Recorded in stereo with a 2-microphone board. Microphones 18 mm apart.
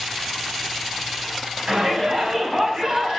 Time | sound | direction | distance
1.7 | a shout | 40° right (ahead or behind) | 6 m